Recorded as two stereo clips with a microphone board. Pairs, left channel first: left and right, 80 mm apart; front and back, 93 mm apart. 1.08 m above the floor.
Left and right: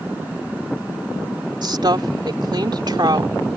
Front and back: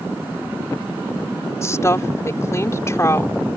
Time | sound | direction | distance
1.6 | a woman speaking | 60° right | ?